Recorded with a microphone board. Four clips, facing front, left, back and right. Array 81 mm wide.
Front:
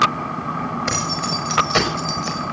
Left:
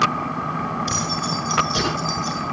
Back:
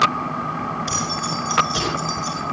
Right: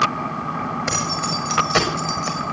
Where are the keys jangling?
50° right, 5.5 m; by 2.5 s 55° right, 4.5 m.